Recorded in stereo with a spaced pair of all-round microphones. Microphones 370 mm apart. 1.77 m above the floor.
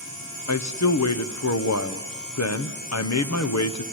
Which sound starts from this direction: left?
A man speaking, at 0.5 s.